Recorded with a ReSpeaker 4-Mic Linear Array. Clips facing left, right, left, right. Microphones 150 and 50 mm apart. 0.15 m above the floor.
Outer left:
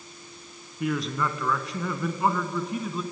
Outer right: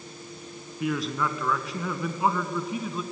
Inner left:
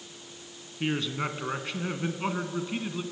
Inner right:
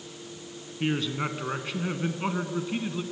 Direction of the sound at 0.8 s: Centre (ahead or behind).